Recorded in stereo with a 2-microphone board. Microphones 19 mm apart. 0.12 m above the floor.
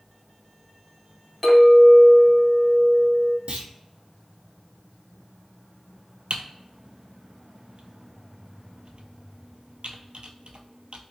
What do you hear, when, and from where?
1.4 s a clink: 5° right (ahead or behind), 1.4 m
3.5 s a clunk: 70° right (ahead or behind), 0.8 m
6.3 s typing on a keyboard: 65° right (ahead or behind), 0.5 m